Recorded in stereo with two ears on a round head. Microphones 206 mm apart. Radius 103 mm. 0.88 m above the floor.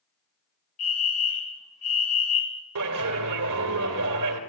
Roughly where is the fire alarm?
Left.